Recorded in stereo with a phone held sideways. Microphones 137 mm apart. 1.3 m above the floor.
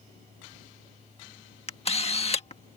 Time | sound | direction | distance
0.0 | a fan | 65° right (ahead or behind) | ?
1.7 | a camera shutter | 45° left (ahead or behind) | ?